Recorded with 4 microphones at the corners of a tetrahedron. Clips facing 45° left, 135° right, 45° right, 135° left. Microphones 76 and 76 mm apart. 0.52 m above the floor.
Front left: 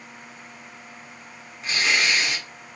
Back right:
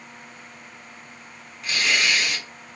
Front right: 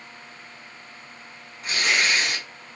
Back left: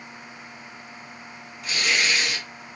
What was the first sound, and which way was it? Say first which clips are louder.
Tearing paper: even, front right 1 dB; 10° right.